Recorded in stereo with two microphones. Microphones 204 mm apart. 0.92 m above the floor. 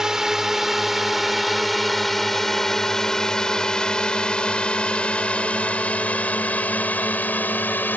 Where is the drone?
5° right (ahead or behind); by 8.0 s 10° left (ahead or behind).